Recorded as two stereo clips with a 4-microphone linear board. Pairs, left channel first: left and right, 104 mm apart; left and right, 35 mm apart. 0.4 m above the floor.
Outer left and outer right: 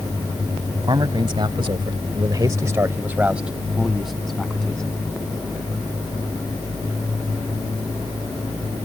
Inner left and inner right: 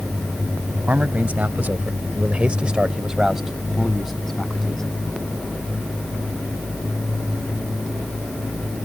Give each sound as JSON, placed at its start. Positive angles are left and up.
{"t": 0.9, "sound": "a man speaking", "side_deg": -45}